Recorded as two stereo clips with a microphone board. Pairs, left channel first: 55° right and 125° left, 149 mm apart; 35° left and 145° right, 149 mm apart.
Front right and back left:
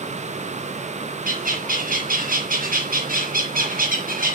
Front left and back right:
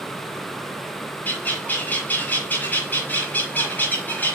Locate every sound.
1.2 s a bird: 110° left, 2 m